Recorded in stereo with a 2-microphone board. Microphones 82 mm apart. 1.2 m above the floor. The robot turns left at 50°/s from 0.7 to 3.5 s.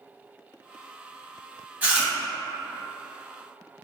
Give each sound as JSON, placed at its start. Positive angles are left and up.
{"t": 1.8, "sound": "chewing", "side_deg": -15, "distance_m": 0.9}